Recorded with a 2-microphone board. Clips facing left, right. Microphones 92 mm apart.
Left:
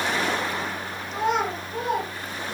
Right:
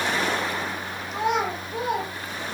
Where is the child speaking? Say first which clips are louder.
Even; 5° right (ahead or behind), 6 m.